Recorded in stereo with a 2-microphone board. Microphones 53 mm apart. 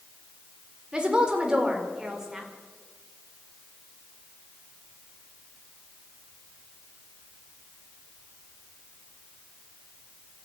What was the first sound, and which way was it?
A woman speaking, 15° right (ahead or behind).